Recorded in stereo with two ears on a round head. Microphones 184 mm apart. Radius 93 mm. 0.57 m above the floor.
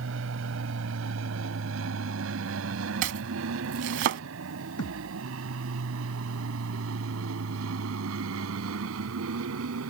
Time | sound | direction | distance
0.0 | an aircraft | 65° right (ahead or behind) | ?
3.0 | chopping | 60° right (ahead or behind) | ?
4.8 | a thud | 80° left | ?